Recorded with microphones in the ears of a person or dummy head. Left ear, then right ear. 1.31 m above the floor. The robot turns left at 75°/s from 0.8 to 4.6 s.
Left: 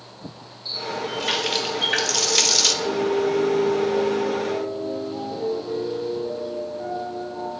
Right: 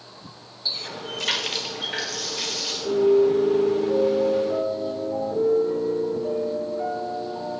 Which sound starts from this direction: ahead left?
A piano, at 2.8 s.